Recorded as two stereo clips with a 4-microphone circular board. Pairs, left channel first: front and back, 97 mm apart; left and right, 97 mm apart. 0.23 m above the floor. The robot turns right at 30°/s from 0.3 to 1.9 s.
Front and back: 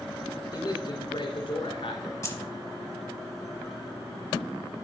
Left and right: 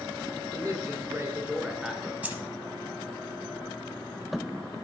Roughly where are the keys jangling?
Ahead right.